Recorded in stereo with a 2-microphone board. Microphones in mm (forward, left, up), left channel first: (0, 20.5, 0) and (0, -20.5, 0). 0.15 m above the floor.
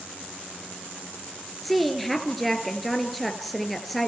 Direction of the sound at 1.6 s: 5° left (ahead or behind).